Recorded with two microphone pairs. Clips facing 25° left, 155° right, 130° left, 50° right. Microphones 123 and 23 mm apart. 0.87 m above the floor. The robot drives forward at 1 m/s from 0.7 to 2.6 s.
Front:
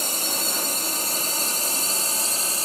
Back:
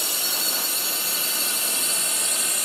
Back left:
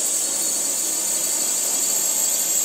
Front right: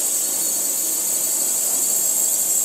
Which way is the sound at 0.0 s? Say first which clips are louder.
Front 3 dB, even; 50° left.